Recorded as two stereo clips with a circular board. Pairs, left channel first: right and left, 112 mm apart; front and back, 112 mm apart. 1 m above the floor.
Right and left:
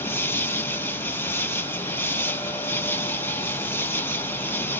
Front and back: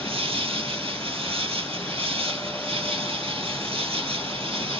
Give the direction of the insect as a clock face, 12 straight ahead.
5 o'clock.